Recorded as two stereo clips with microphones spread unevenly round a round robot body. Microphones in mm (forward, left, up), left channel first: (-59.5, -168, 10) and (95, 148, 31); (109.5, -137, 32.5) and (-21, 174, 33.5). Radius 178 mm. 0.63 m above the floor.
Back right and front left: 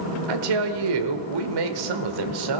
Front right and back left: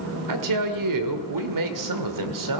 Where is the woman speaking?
85° left, 1.9 m.